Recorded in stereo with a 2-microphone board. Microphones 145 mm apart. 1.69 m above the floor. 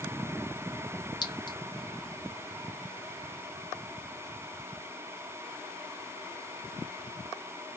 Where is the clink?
30° left (ahead or behind), 1.0 m.